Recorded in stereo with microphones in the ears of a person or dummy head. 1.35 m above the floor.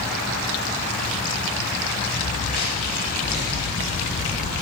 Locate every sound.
2.2 s footsteps: 40° left (ahead or behind), 9 m; by 4.5 s 45° left (ahead or behind), 7 m